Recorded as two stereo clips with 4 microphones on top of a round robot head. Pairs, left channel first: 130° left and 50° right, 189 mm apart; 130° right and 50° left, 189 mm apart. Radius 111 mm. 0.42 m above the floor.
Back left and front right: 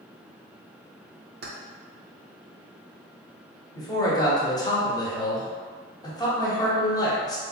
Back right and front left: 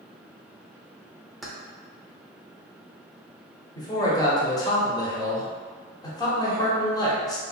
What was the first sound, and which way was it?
Keys jangling, 40° right.